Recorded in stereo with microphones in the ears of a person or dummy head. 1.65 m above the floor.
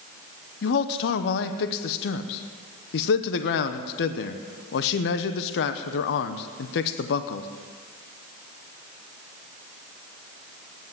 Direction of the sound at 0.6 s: 60° left (ahead or behind).